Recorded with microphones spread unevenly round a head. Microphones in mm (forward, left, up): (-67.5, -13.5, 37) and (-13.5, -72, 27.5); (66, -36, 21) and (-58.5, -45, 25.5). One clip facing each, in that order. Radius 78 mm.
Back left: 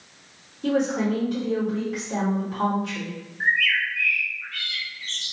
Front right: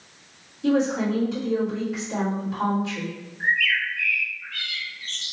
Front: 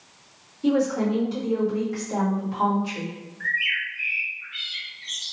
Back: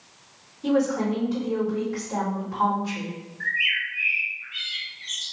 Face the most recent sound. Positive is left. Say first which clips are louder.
# back left 1 dB, front 2 dB
turn(degrees=125)